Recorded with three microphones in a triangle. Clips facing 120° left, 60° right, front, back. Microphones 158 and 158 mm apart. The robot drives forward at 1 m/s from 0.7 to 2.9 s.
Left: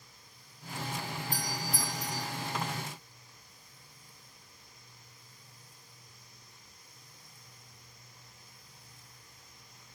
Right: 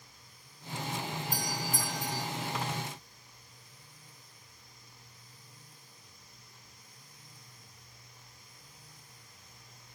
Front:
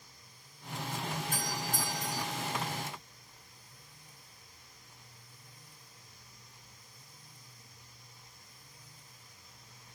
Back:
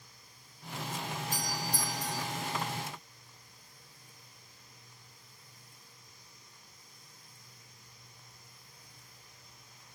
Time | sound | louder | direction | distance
1.3 | a doorbell | even, even | 25° right | 3.5 m